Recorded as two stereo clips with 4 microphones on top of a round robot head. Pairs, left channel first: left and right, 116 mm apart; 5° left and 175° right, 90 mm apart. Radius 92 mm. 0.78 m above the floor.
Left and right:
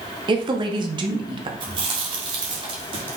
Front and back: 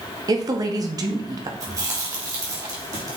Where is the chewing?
130° right, 2.0 m.